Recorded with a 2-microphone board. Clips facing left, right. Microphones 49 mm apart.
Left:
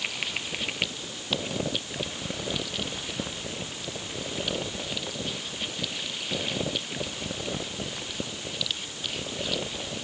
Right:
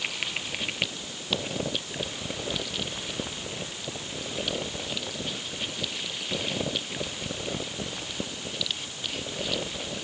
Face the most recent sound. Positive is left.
No sound to turn to.